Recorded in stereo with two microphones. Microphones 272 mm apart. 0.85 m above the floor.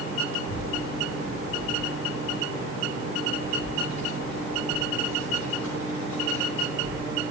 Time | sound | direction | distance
0.4 | a child speaking | 80° left | 5 m